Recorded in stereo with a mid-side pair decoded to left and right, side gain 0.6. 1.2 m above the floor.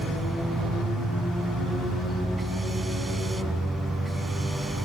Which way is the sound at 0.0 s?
20° right.